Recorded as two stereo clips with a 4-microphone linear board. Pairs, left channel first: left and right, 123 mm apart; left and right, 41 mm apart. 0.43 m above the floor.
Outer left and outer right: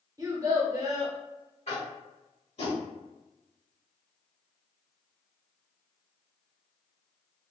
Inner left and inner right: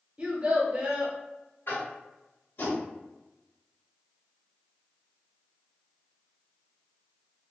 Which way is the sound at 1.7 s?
60° left (ahead or behind).